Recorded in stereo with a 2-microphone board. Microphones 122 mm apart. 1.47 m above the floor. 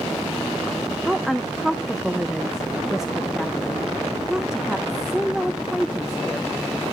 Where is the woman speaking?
5° right (ahead or behind), 0.6 m.